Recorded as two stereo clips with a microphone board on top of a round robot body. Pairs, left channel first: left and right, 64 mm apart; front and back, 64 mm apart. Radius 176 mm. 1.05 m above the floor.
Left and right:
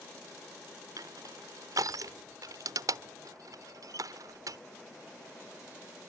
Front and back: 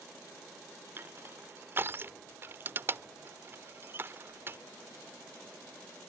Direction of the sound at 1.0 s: 125° right.